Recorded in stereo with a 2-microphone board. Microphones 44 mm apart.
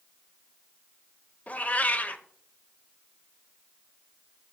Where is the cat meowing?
35° left (ahead or behind), 0.6 m.